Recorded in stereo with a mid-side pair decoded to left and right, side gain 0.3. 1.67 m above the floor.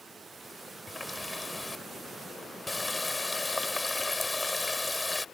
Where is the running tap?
25° left.